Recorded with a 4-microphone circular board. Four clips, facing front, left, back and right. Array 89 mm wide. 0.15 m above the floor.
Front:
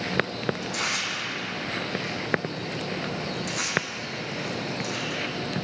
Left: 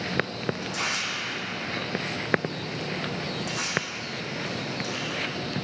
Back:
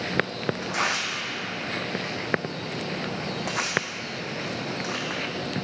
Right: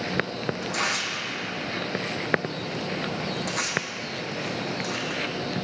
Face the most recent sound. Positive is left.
turn(degrees=-165)